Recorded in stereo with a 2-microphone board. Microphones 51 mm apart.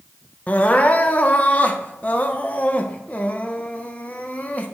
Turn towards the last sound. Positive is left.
turn(degrees=30)  # may be behind; listen again after turning